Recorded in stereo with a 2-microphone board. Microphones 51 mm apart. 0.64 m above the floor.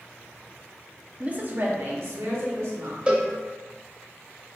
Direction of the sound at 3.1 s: 25° right (ahead or behind).